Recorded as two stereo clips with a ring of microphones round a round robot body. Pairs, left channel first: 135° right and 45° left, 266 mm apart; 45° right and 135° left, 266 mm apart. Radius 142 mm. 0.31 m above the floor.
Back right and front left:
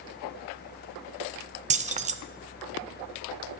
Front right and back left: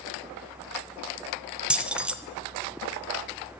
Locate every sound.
1.7 s keys jangling: 55° left, 0.6 m